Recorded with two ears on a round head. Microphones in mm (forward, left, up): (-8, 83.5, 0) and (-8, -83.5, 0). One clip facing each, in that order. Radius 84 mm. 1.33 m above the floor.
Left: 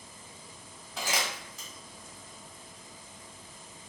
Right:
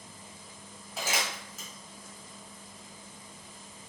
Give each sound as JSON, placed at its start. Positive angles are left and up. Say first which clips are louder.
{"t": 1.0, "sound": "crumpling", "louder": "even", "side_deg": -5, "distance_m": 1.6}